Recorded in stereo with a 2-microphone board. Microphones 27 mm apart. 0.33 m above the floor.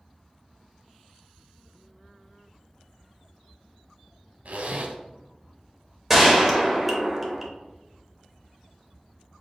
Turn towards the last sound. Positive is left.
turn(degrees=-5)  # may be behind; listen again after turning